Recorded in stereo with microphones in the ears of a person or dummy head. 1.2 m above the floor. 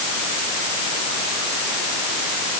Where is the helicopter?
No helicopter in this recording.